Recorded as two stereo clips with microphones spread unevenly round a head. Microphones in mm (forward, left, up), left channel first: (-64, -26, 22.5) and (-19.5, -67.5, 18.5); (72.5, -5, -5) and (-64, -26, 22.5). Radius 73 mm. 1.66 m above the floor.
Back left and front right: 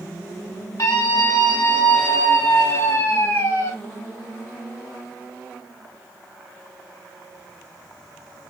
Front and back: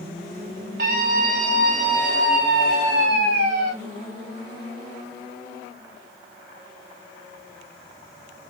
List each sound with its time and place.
0.8 s a scream: 165° left, 5.5 m; by 3.7 s straight behind, 7.5 m